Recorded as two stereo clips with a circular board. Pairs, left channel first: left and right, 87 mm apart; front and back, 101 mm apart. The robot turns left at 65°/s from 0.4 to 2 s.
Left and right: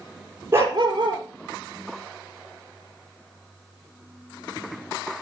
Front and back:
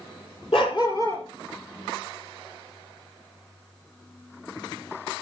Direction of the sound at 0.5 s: 25° right.